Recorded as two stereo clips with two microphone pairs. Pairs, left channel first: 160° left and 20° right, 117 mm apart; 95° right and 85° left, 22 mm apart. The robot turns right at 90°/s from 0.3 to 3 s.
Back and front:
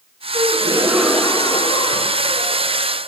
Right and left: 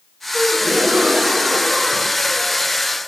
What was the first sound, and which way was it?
A gasp, 5° left.